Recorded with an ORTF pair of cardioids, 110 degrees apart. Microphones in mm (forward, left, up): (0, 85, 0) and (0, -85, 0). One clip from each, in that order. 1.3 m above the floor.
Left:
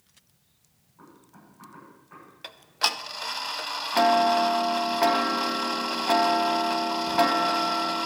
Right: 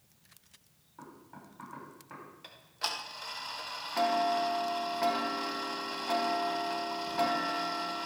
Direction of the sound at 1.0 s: 60° right.